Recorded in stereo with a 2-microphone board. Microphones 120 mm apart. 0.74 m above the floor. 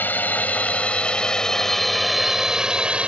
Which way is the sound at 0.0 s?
15° left (ahead or behind).